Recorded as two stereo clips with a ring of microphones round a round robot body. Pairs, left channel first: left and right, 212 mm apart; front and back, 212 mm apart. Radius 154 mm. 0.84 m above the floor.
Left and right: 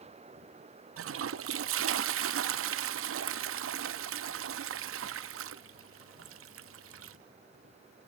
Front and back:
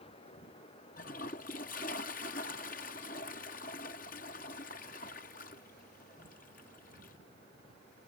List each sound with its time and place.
1.0 s a toilet flushing: 65° right